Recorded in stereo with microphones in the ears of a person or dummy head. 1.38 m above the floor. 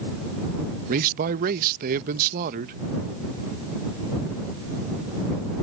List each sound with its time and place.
0.9 s a man speaking: 45° right (ahead or behind)